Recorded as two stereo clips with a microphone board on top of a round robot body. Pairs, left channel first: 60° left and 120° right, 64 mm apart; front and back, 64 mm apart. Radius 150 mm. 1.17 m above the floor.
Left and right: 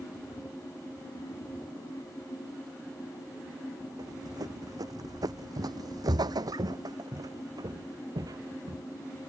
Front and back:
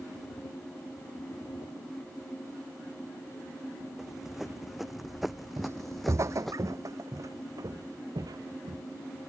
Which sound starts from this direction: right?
Running footsteps, at 4.0 s.